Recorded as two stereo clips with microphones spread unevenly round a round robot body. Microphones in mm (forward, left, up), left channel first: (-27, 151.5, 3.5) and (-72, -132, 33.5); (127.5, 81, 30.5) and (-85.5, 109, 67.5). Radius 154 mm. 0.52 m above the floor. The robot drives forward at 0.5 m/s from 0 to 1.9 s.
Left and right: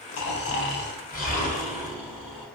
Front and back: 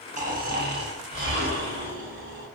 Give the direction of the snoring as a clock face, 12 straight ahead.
8 o'clock.